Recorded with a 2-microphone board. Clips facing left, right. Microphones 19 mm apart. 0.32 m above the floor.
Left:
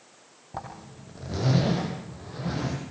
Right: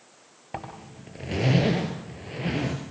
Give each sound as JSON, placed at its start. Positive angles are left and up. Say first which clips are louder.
{"t": 0.5, "sound": "a zipper", "louder": "right 1 dB", "side_deg": -70, "distance_m": 6.5}